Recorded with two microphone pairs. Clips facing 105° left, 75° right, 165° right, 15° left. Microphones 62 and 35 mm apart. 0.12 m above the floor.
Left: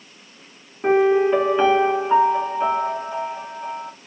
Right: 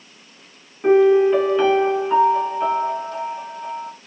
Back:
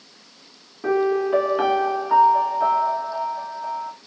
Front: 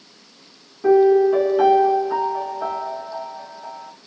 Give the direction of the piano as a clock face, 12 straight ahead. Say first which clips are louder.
Right 3 dB, front 7 dB; 7 o'clock.